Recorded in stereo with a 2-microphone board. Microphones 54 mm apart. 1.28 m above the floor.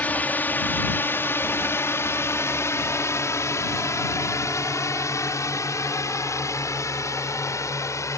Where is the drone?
35° left (ahead or behind); by 8.2 s 75° left (ahead or behind).